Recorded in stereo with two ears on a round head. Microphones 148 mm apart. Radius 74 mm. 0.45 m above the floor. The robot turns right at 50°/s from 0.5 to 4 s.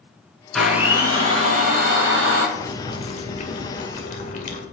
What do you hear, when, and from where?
0.5 s a blender: 175° left, 4 m; by 2.5 s 85° right, 4 m
2.5 s boiling: 20° left, 2 m; by 4.6 s 95° left, 2 m